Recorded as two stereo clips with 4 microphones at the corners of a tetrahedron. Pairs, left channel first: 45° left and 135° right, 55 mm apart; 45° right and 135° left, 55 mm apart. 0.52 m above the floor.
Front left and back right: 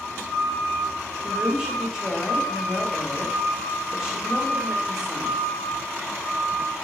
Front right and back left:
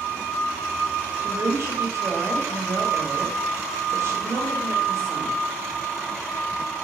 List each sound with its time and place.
1.2 s a woman speaking: 145° left, 1.3 m